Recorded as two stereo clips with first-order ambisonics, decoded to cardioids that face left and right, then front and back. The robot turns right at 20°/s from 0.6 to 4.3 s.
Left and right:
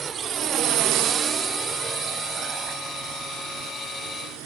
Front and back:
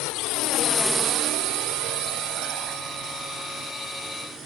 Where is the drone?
20° right; by 4.5 s 115° right.